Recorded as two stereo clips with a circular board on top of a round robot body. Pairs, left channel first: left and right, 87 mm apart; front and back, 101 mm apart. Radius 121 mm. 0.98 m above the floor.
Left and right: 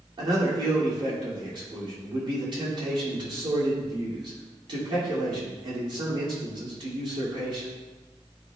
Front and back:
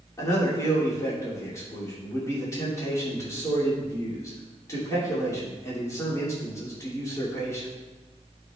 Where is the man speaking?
60° right, 3 m.